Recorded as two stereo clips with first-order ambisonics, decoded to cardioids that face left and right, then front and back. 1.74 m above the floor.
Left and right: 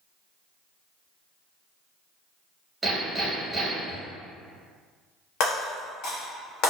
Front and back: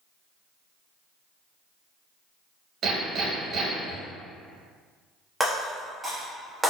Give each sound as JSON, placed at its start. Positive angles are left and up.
{"t": 2.8, "sound": "hammering", "azimuth_deg": -170, "distance_m": 1.2}
{"t": 5.4, "sound": "breaking glass", "azimuth_deg": 95, "distance_m": 1.2}